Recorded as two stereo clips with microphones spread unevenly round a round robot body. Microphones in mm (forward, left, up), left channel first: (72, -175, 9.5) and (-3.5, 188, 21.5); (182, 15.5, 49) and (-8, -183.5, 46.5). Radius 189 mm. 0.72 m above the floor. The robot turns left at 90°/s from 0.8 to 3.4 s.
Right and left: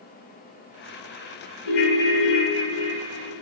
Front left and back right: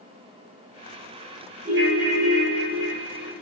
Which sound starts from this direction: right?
A ringtone, at 1.6 s.